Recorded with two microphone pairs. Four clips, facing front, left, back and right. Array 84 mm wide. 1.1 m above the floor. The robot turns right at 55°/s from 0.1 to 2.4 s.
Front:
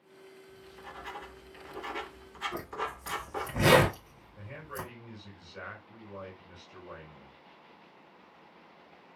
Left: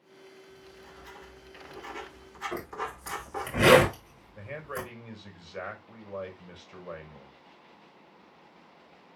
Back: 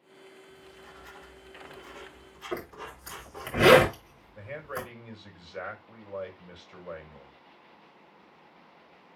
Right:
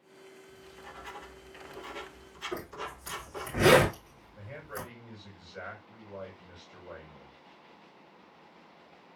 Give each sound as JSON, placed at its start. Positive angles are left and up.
{"t": 0.5, "sound": "writing", "azimuth_deg": -55, "distance_m": 2.0}
{"t": 2.5, "sound": "a zipper", "azimuth_deg": 155, "distance_m": 8.0}
{"t": 4.3, "sound": "a man speaking", "azimuth_deg": 130, "distance_m": 5.0}